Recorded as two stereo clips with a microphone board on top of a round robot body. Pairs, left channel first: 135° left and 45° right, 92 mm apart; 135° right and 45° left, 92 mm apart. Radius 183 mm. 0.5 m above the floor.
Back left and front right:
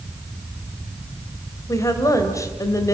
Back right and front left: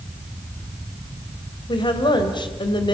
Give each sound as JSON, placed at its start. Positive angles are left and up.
{"t": 1.7, "sound": "a woman speaking", "azimuth_deg": -170, "distance_m": 3.0}